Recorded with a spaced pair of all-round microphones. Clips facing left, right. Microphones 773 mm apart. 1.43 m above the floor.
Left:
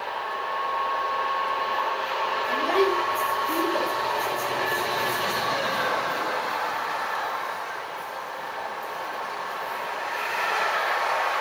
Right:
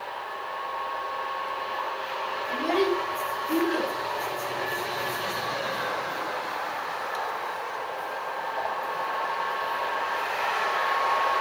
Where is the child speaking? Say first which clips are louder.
Left 1 dB; 50° left (ahead or behind), 7.5 m.